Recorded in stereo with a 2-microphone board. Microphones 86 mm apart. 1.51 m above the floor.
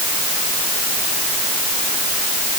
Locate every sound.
Only background noise.